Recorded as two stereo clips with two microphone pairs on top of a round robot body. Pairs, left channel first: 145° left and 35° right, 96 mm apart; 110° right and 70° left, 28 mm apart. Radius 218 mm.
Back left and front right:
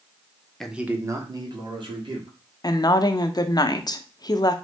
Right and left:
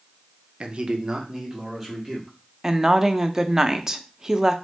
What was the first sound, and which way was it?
A man speaking, 55° left.